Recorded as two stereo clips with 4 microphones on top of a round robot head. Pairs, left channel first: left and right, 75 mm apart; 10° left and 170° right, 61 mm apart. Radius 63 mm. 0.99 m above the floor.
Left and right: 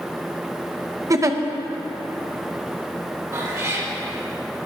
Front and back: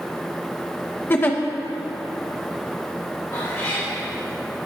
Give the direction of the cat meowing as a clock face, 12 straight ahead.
1 o'clock.